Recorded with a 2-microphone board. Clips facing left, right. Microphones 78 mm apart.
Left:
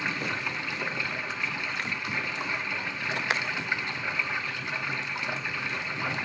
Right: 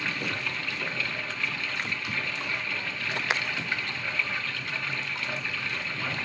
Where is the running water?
20° left (ahead or behind), 1.4 m.